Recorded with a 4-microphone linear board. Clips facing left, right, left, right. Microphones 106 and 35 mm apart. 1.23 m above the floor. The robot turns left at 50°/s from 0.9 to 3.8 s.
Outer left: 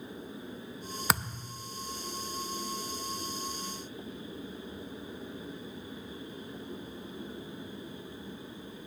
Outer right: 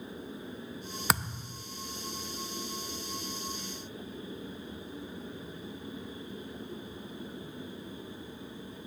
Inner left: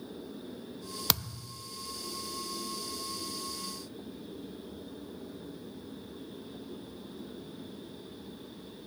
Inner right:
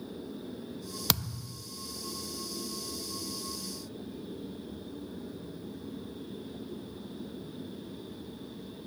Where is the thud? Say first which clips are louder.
Even, inner right 1 dB; centre (ahead or behind), 0.5 m; by 1.6 s 10° right (ahead or behind), 0.5 m.